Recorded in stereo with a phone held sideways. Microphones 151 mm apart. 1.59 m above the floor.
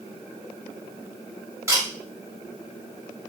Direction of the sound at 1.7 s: 20° right (ahead or behind).